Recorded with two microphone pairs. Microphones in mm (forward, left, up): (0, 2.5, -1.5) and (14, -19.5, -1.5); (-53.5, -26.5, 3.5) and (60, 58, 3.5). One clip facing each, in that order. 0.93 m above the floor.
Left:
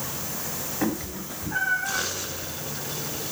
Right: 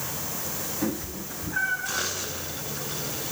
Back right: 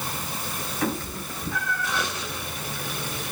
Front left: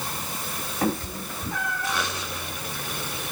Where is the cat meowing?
95° left, 3 m; by 2.0 s 110° left, 3 m.